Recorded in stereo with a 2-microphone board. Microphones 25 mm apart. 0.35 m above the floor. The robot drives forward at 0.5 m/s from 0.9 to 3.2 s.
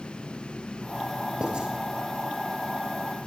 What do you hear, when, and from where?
1.4 s writing: 40° right (ahead or behind), 3.5 m